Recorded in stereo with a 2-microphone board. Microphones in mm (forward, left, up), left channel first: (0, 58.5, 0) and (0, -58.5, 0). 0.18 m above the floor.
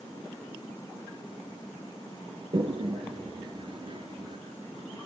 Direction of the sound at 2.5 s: 45° right (ahead or behind).